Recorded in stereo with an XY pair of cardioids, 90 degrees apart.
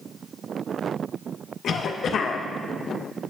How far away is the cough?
About 0.9 m.